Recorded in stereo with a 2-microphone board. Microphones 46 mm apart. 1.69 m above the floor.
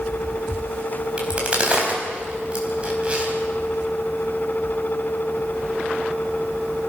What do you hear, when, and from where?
1.2 s a crack: 25° right (ahead or behind), 4.5 m